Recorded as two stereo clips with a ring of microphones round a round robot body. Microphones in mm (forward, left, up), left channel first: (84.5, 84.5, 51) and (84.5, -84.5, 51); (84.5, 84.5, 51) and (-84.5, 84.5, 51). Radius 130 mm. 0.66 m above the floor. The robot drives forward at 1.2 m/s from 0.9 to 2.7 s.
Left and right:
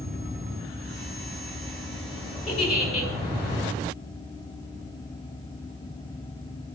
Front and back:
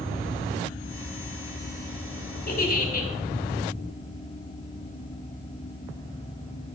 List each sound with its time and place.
2.5 s a giggle: 40° left, 5.5 m